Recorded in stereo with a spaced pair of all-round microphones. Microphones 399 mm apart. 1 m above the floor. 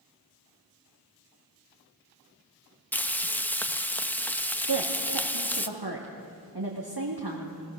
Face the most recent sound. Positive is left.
turn(degrees=-65)  # may be behind; listen again after turning